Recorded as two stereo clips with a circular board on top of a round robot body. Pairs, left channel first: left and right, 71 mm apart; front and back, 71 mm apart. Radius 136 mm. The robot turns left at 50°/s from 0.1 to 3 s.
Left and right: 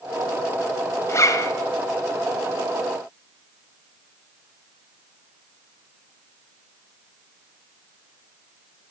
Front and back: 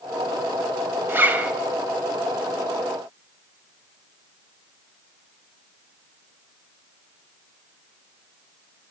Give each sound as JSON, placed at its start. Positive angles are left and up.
{"t": 1.1, "sound": "a zipper", "azimuth_deg": 130, "distance_m": 1.3}